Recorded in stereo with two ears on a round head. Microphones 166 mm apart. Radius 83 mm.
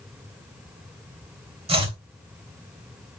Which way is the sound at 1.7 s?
35° right (ahead or behind).